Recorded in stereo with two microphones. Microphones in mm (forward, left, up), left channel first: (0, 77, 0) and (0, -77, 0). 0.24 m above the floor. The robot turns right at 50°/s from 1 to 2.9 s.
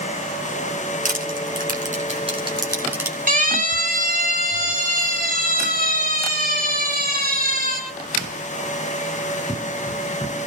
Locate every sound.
1.1 s crushing: 60° right (ahead or behind), 2.5 m; by 3.2 s 15° right (ahead or behind), 2.5 m
3.3 s a siren: 60° right (ahead or behind), 6 m; by 7.8 s 65° right (ahead or behind), 12.5 m